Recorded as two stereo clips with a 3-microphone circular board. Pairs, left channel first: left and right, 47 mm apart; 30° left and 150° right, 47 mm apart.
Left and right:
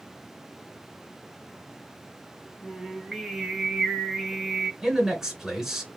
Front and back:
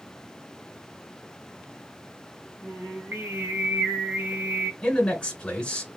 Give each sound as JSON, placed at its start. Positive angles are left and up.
{"t": 2.6, "sound": "singing", "azimuth_deg": -170, "distance_m": 0.8}
{"t": 4.8, "sound": "a man speaking", "azimuth_deg": -20, "distance_m": 1.4}